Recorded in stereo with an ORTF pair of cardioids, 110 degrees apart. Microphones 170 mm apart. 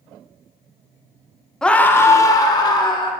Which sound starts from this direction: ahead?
A scream, at 1.6 s.